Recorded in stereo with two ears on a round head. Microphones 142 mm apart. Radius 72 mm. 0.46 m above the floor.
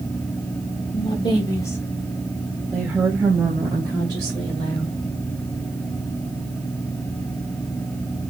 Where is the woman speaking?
35° left (ahead or behind), 1.4 m; by 5.0 s 30° right (ahead or behind), 2.5 m.